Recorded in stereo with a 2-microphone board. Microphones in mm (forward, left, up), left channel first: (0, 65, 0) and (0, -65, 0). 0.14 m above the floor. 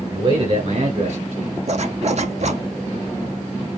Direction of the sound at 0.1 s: 35° right (ahead or behind).